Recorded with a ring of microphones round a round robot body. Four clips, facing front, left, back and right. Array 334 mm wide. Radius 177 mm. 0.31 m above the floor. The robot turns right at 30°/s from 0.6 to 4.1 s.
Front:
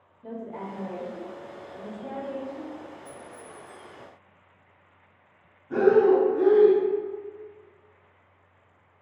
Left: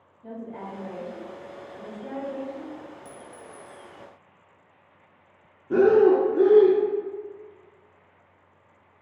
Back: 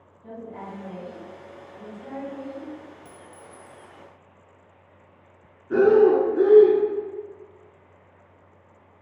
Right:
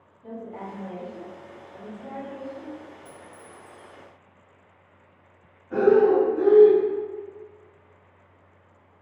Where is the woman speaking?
10° right, 1.1 m; by 2.8 s 60° left, 1.1 m.